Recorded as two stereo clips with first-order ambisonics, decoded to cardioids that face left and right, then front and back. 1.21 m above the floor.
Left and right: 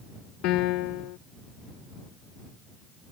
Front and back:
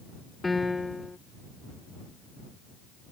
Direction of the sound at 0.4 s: 80° left.